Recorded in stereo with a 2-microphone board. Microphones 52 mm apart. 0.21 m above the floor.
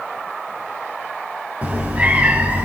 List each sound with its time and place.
1.6 s a cat meowing: 30° right (ahead or behind), 2.5 m